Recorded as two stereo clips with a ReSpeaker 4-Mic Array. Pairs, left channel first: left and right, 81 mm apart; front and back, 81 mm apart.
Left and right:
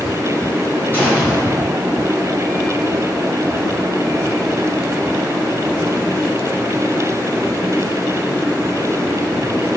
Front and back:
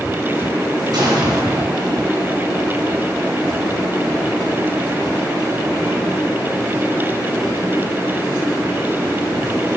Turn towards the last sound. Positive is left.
turn(degrees=155)